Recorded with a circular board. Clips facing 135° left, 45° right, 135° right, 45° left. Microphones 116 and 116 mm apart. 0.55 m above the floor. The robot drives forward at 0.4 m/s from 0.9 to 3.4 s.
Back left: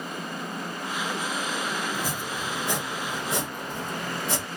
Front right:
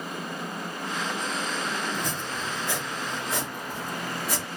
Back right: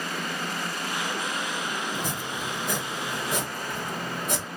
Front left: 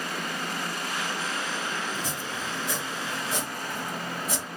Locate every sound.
1.9 s chopping: 140° right, 0.7 m; by 4.5 s 160° right, 1.1 m